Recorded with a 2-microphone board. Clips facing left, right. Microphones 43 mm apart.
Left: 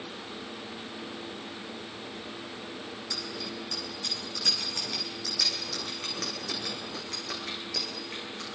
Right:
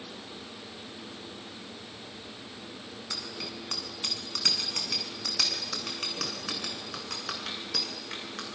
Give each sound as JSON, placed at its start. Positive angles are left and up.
{"t": 3.1, "sound": "a bicycle bell", "side_deg": -50, "distance_m": 7.0}